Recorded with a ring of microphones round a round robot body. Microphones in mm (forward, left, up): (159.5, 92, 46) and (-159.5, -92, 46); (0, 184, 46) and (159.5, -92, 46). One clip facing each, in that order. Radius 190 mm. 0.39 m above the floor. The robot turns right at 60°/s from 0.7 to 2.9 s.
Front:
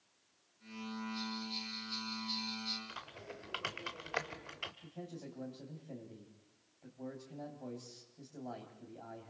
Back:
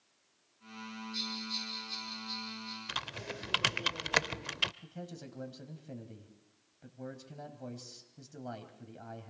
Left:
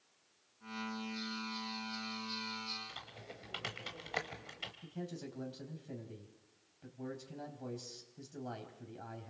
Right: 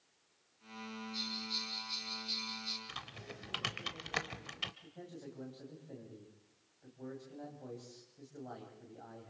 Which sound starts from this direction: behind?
A man speaking, at 4.8 s.